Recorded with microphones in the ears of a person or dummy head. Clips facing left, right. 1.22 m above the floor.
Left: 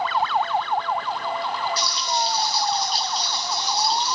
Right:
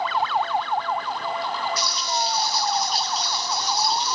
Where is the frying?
25° left (ahead or behind), 4 m.